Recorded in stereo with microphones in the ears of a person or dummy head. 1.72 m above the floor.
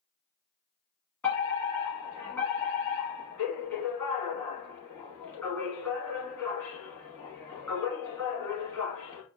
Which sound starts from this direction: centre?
A fire alarm, at 1.2 s.